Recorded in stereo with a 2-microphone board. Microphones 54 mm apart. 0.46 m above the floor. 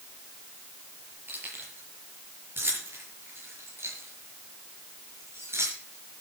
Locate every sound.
1.3 s keys jangling: 40° right (ahead or behind), 7.5 m; by 6.2 s 55° right (ahead or behind), 5.5 m